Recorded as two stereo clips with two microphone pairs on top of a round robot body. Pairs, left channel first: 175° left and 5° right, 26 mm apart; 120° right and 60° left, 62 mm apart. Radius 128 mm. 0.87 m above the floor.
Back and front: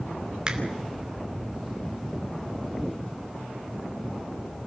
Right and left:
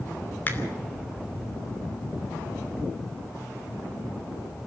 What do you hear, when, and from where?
0.5 s a finger snap: 65° right, 2.5 m